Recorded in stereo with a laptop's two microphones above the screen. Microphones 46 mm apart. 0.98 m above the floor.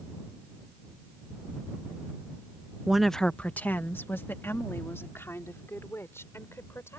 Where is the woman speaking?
15° right (ahead or behind); by 7.0 s 70° left (ahead or behind).